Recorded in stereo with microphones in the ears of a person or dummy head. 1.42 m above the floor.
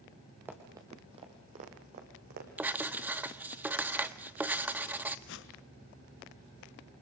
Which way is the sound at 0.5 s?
5° right (ahead or behind).